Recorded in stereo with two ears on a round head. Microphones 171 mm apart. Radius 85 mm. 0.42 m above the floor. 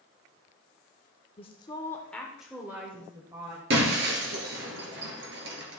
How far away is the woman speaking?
About 0.9 m.